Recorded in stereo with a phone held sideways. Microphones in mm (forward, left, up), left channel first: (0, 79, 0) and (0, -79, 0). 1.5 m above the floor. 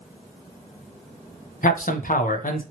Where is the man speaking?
60° left (ahead or behind), 0.5 m.